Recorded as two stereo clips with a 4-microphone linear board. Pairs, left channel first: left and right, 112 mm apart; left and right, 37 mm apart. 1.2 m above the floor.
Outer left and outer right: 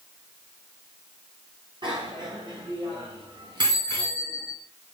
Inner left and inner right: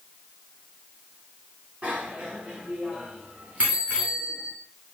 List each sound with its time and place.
1.8 s a bicycle bell: 45° right (ahead or behind), 8.5 m; by 4.5 s 40° right (ahead or behind), 11 m